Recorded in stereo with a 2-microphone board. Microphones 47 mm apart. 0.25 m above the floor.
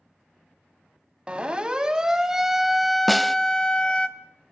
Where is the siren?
25° right (ahead or behind), 2.5 m; by 4.1 s 25° left (ahead or behind), 1.9 m.